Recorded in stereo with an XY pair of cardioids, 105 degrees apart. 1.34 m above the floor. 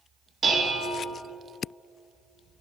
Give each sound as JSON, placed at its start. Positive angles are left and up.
{"t": 0.4, "sound": "dishes clattering", "azimuth_deg": -35, "distance_m": 1.5}